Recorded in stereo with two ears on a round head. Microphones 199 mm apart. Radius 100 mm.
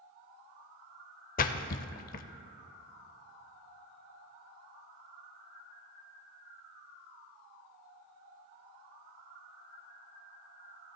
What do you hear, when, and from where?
1.4 s a splash: 40° left (ahead or behind), 0.6 m